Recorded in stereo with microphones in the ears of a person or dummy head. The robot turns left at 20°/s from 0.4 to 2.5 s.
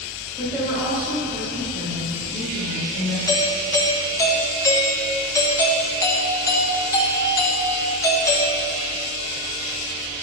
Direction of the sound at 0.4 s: 5° right.